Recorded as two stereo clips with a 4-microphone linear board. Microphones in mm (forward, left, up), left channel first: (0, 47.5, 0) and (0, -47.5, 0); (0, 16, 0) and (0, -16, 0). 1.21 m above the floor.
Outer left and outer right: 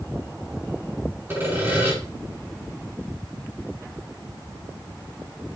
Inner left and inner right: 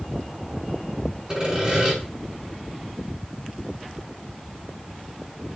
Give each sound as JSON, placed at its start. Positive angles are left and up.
{"t": 1.3, "sound": "sawing", "side_deg": -20, "distance_m": 5.5}